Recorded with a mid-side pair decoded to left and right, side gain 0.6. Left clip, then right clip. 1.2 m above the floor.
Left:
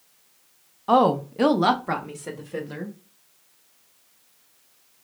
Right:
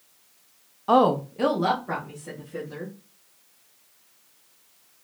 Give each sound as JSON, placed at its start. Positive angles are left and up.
{"t": 0.9, "sound": "a woman speaking", "azimuth_deg": 0, "distance_m": 0.5}